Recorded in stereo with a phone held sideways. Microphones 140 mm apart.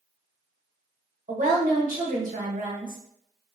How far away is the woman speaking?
About 0.9 m.